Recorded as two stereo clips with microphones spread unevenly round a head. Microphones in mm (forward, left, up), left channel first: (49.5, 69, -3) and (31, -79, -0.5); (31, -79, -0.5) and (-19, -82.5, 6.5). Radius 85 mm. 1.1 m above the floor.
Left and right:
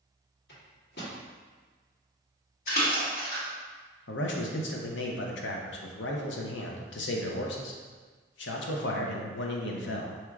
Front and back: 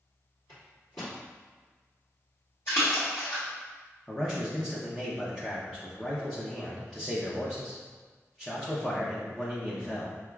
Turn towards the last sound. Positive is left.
turn(degrees=90)